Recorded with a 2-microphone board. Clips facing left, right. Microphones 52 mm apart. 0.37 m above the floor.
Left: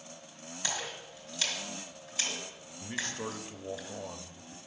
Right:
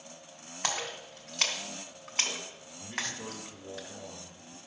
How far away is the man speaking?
About 1.2 m.